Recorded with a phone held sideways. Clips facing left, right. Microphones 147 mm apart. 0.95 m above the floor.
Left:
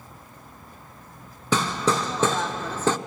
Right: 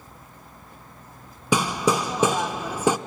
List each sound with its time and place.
1.5 s hammering: 10° right (ahead or behind), 0.6 m